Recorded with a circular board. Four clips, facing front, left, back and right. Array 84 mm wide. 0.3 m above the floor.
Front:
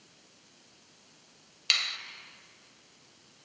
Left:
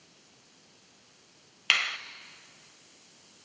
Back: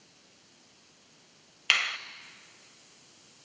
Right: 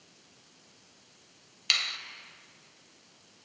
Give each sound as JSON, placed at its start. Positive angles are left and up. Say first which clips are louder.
{"t": 1.7, "sound": "a finger snap", "louder": "left 6 dB, back 6 dB", "azimuth_deg": 140, "distance_m": 0.8}